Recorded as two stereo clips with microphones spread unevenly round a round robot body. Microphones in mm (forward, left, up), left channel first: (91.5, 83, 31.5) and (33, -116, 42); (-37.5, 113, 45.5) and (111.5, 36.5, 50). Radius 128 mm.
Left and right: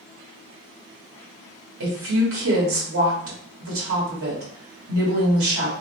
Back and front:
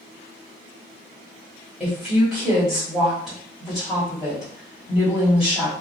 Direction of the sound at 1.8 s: 115° right.